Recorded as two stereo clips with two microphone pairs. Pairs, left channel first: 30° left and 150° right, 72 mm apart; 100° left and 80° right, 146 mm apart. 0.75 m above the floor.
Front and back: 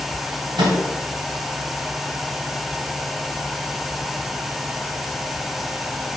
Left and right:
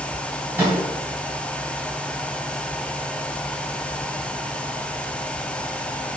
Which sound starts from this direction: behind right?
A microwave, at 0.6 s.